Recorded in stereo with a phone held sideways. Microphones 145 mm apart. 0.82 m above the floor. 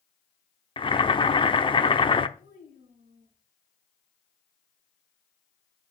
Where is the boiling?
35° left (ahead or behind), 0.8 m.